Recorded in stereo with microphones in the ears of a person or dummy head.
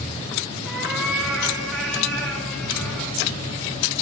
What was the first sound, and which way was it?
A cat meowing, 5° right (ahead or behind).